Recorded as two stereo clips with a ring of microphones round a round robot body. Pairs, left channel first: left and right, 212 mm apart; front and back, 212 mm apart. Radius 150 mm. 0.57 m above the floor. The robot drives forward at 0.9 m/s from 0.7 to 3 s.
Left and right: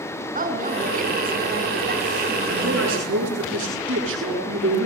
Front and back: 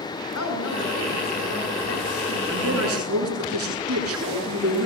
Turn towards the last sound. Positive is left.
turn(degrees=-140)